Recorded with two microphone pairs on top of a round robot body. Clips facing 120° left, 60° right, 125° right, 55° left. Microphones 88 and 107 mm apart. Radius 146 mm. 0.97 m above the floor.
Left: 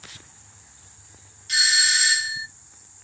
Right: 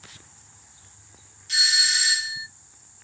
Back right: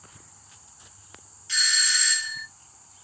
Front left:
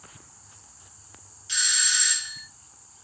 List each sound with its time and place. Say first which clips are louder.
1.5 s a doorbell: left 4 dB, back right 2 dB; 120° left, 1.3 m